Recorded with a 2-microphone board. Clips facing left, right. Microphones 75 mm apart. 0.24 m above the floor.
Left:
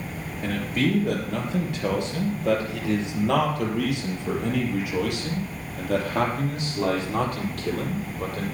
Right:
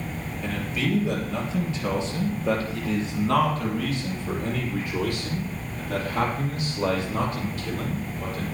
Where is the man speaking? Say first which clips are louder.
Left 4 dB; 50° left (ahead or behind), 4.5 m; by 8.4 s 70° left (ahead or behind), 6.5 m.